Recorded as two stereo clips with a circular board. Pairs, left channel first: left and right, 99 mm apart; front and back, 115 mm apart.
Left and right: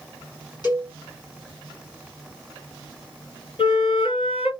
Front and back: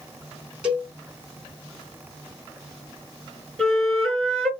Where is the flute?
80° left, 2.5 m.